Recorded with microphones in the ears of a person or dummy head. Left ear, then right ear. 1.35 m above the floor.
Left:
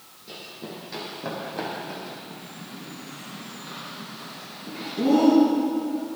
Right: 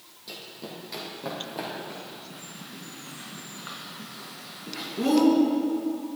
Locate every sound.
0.3 s running footsteps: 25° right (ahead or behind), 3.5 m; by 2.2 s centre (ahead or behind), 4.5 m
2.3 s a bird: 40° right (ahead or behind), 4.5 m